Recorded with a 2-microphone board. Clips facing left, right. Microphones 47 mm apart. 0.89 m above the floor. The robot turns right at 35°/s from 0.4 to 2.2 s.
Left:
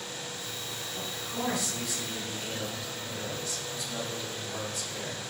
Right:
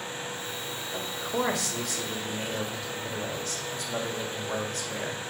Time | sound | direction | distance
0.9 | a man speaking | 110° right | 1.5 m